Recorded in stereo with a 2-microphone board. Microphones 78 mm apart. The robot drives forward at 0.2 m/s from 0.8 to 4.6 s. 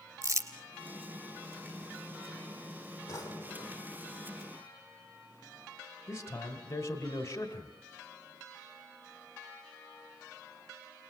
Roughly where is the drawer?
Left.